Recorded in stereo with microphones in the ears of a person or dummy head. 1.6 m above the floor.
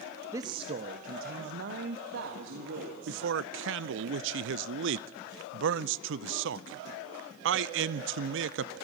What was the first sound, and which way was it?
A man speaking, 15° right (ahead or behind).